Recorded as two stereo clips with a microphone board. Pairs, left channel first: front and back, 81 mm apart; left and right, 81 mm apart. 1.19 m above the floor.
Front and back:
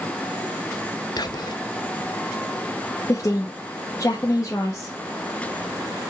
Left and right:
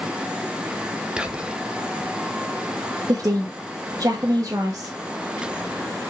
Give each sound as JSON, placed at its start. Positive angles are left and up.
{"t": 1.2, "sound": "whispering", "azimuth_deg": -15, "distance_m": 1.0}
{"t": 3.1, "sound": "a woman speaking", "azimuth_deg": -50, "distance_m": 1.5}